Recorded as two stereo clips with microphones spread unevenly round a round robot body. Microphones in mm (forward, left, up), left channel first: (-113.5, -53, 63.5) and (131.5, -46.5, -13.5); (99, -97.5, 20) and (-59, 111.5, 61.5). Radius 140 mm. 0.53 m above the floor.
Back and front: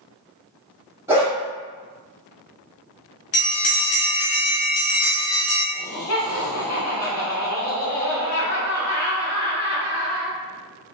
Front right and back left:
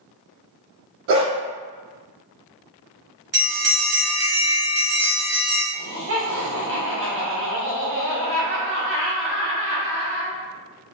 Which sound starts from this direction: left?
A dog barking, at 1.1 s.